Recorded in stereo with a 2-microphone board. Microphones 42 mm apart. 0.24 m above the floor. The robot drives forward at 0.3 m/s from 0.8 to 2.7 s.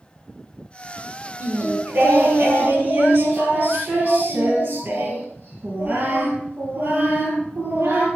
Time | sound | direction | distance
1.4 | singing | 45° right (ahead or behind) | 3 m